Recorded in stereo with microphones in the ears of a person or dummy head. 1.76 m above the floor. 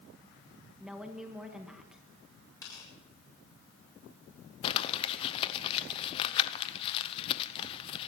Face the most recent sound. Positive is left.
turn(degrees=35)  # may be behind; listen again after turning